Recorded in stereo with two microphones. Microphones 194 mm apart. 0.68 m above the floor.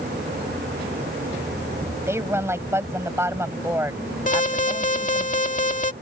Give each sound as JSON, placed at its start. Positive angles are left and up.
{"t": 2.1, "sound": "a woman speaking", "side_deg": -15}
{"t": 4.3, "sound": "an alarm", "side_deg": 40}